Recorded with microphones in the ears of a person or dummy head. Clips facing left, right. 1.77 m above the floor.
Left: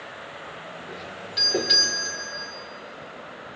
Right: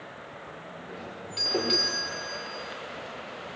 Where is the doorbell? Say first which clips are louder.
Even; 20° left (ahead or behind), 6 m.